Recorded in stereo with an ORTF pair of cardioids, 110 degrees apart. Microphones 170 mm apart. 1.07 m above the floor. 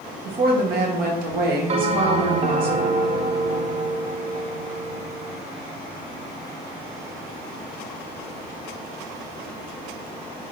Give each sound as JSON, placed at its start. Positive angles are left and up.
{"t": 0.2, "sound": "a woman speaking", "azimuth_deg": -65, "distance_m": 1.3}
{"t": 1.7, "sound": "a bell", "azimuth_deg": -40, "distance_m": 0.5}